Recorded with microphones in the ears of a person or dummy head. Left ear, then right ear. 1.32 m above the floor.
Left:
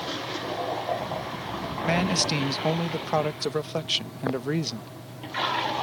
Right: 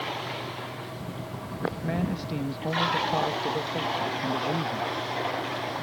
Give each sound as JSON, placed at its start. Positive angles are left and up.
{"t": 1.8, "sound": "a man speaking", "side_deg": 75}